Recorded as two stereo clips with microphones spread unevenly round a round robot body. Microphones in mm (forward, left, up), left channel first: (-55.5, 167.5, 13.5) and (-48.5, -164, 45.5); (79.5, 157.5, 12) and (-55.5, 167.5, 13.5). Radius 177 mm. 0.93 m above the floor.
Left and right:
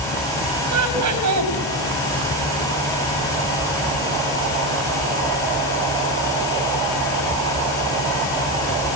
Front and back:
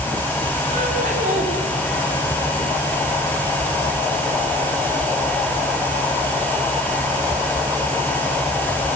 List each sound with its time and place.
0.7 s laughter: 125° right, 5 m